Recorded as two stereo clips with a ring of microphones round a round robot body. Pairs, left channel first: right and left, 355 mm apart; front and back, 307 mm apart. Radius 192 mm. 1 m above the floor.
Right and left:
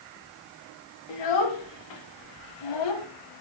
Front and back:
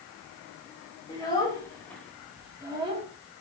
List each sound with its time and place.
1.1 s a child speaking: 75° right, 2.5 m; by 3.1 s 110° right, 1.4 m